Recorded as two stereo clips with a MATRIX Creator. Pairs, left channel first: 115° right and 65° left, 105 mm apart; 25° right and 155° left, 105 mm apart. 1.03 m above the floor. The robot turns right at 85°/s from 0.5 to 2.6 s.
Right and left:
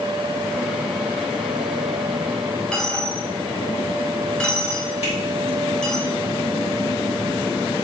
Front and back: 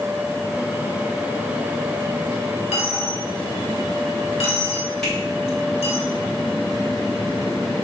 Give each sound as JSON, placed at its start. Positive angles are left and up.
{"t": 2.7, "sound": "a dropped coin", "azimuth_deg": -30, "distance_m": 1.4}
{"t": 5.0, "sound": "a finger snap", "azimuth_deg": -105, "distance_m": 3.5}